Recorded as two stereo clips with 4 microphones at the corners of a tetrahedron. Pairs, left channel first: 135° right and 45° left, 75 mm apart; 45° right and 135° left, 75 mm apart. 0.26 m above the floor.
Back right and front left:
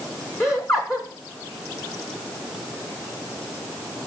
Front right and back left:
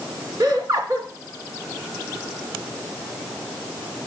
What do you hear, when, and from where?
0.4 s laughter: straight behind, 3 m